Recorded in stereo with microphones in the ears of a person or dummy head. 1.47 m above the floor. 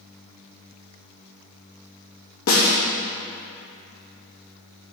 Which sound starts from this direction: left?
A snare drum, at 2.5 s.